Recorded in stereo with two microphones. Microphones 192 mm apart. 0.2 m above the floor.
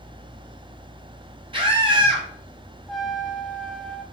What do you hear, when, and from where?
1.5 s a scream: 25° right (ahead or behind), 1.2 m
2.9 s a trumpet: centre (ahead or behind), 0.6 m